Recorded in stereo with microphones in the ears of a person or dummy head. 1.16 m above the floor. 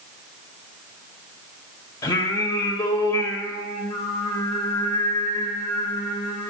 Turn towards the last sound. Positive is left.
turn(degrees=20)  # may be behind; listen again after turning